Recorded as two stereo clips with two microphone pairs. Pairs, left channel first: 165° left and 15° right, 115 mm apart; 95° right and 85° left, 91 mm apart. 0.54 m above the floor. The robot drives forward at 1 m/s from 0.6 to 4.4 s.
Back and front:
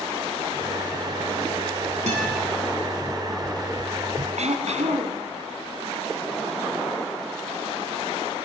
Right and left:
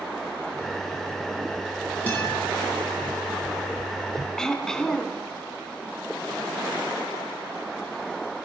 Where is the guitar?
20° right, 8.5 m.